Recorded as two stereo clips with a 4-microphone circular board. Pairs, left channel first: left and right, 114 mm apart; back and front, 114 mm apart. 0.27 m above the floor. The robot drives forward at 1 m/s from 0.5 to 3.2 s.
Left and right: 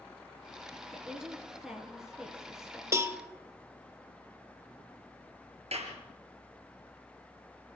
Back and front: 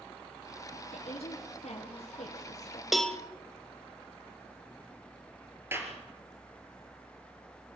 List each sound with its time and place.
0.9 s a woman speaking: 175° right, 2.5 m
2.9 s a cowbell: 85° right, 0.8 m; by 3.2 s 125° right, 0.8 m
5.7 s a clap: 70° right, 4 m